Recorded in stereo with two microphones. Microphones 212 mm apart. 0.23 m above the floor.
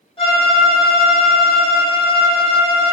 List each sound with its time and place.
0.2 s a violin: 25° left (ahead or behind), 1.4 m